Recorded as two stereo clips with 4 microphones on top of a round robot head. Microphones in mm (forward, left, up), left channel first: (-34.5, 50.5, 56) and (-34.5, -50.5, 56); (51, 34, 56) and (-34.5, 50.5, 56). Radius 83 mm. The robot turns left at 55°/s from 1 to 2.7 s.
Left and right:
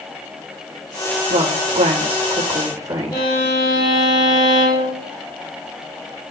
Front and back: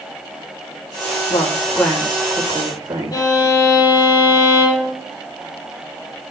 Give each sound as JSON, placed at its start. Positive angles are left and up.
{"t": 1.3, "sound": "a woman speaking", "azimuth_deg": -65, "distance_m": 3.5}
{"t": 3.1, "sound": "a violin", "azimuth_deg": 30, "distance_m": 6.5}